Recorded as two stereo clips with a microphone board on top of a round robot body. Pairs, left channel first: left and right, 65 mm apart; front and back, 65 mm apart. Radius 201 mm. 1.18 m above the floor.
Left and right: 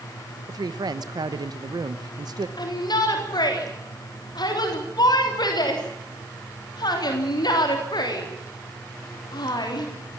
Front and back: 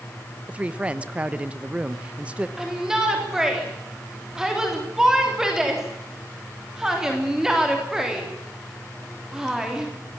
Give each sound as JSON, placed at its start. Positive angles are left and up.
{"t": 0.5, "sound": "a woman speaking", "azimuth_deg": -110, "distance_m": 1.1}
{"t": 2.6, "sound": "a shout", "azimuth_deg": 95, "distance_m": 3.5}